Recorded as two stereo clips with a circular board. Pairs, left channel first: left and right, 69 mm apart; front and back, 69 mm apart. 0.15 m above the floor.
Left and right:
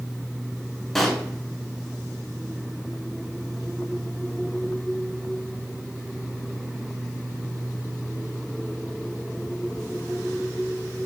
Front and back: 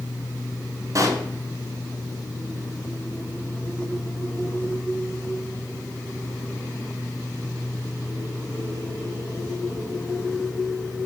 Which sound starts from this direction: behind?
A pop, at 0.9 s.